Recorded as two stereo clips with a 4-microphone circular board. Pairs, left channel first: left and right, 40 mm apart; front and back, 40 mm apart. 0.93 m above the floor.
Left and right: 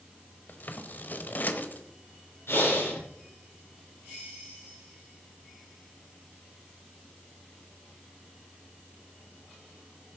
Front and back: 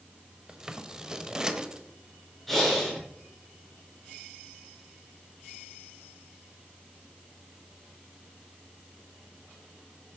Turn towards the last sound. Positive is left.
turn(degrees=85)